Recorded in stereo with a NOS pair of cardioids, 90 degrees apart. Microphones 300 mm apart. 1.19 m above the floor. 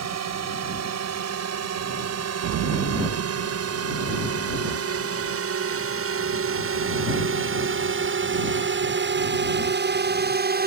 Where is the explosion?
70° right.